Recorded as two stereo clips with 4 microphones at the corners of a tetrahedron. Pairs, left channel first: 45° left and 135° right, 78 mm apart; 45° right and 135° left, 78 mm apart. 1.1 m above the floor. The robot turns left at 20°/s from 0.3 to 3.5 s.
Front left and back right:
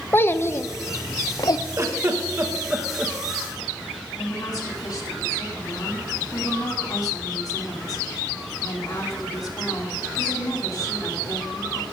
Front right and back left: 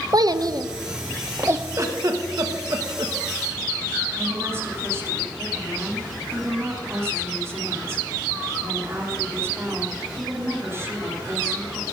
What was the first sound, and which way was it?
A child speaking, 105° left.